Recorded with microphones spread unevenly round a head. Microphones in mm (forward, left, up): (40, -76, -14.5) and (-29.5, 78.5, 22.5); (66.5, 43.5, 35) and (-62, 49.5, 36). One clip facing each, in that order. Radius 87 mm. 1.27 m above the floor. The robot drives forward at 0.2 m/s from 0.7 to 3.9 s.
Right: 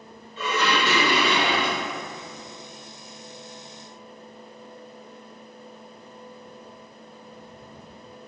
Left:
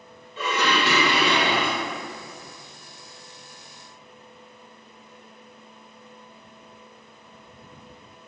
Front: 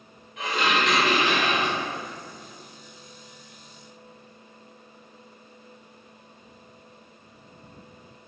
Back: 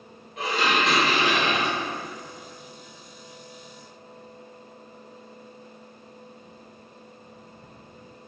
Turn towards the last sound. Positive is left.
turn(degrees=145)